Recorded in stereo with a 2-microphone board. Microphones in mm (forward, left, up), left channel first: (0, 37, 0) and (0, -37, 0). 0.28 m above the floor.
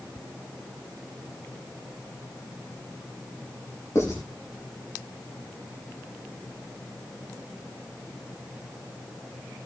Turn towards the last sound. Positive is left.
turn(degrees=40)  # may be behind; listen again after turning